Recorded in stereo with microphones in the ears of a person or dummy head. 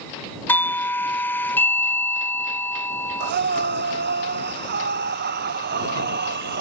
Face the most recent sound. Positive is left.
turn(degrees=-50)  # may be behind; listen again after turning